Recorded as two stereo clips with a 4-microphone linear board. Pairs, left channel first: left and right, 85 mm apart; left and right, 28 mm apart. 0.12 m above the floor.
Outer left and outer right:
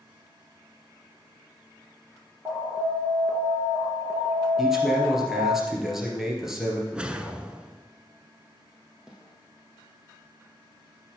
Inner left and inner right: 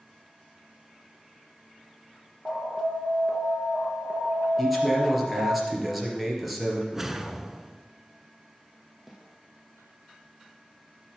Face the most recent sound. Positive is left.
turn(degrees=-10)  # may be behind; listen again after turning